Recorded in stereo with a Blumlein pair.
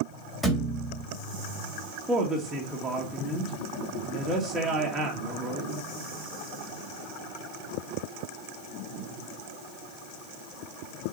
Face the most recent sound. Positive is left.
turn(degrees=-10)